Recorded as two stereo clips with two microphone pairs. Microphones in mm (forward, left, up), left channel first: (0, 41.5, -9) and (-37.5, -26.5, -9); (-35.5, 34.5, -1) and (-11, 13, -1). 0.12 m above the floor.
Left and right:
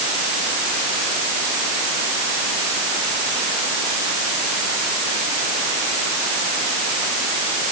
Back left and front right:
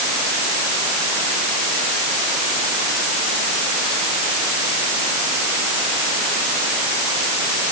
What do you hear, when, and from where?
Only background noise.